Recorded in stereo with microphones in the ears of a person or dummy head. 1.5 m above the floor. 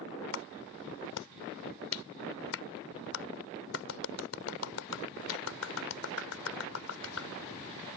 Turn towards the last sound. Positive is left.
turn(degrees=75)  # may be behind; listen again after turning